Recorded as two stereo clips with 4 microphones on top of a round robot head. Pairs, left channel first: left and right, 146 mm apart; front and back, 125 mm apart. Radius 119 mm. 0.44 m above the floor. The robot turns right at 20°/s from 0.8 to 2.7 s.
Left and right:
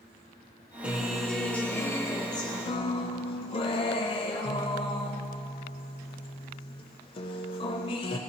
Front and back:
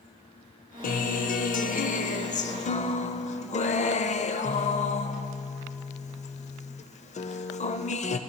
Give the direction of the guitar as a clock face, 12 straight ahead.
12 o'clock.